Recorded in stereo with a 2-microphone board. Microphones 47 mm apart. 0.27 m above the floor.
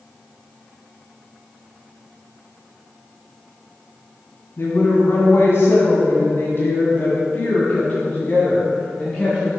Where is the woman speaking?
60° left (ahead or behind), 2 m; by 9.5 s 10° left (ahead or behind), 2.0 m.